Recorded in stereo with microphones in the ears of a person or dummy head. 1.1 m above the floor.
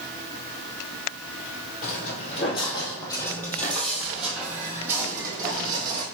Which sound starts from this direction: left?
Footsteps, at 1.8 s.